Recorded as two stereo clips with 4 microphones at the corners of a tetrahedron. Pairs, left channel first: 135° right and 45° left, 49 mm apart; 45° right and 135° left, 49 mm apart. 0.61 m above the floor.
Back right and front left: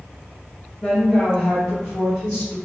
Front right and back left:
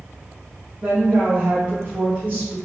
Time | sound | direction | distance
0.8 | a woman speaking | 170° right | 0.7 m